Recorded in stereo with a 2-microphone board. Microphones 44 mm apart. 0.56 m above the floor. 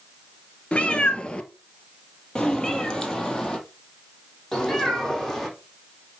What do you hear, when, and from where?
0.7 s a cat meowing: 30° left (ahead or behind), 1.3 m; by 5.5 s 10° left (ahead or behind), 4 m